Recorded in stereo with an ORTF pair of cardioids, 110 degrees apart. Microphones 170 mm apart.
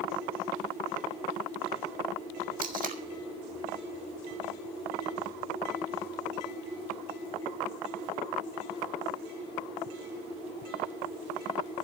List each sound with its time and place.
2.6 s tape being pulled: 50° right, 1.6 m